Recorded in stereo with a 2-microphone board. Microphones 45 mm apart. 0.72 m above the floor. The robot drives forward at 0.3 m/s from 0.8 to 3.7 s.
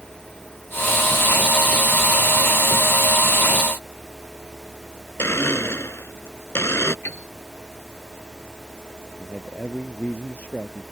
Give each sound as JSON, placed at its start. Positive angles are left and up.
{"t": 5.2, "sound": "a blender", "side_deg": 70}
{"t": 7.0, "sound": "a piano", "side_deg": 75}
{"t": 9.2, "sound": "a man speaking", "side_deg": 35}